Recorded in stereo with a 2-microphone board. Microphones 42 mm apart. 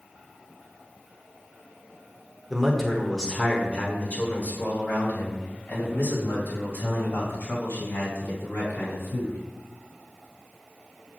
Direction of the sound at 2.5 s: 5° right (ahead or behind).